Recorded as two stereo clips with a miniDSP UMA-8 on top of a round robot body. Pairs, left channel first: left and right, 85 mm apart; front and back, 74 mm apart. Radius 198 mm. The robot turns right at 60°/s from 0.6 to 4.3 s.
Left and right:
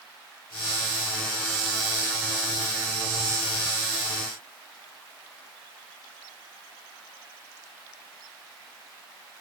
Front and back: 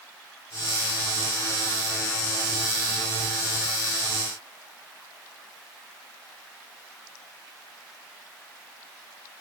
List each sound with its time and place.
Only background noise.